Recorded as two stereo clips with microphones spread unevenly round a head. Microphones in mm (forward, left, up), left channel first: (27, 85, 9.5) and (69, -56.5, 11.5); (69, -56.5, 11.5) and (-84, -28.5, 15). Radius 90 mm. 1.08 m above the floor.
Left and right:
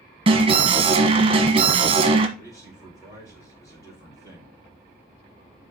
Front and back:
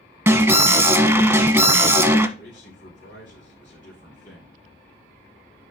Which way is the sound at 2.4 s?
35° left.